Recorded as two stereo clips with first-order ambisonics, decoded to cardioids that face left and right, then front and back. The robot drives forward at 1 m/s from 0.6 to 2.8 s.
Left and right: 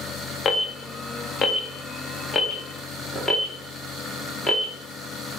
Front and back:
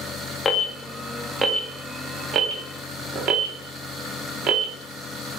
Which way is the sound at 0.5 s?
55° left.